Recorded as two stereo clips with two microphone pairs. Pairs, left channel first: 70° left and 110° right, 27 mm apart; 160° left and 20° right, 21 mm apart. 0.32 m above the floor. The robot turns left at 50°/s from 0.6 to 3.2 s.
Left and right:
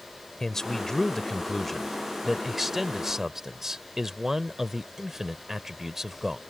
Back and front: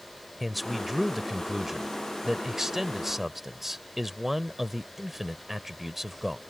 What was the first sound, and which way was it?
A man speaking, 60° left.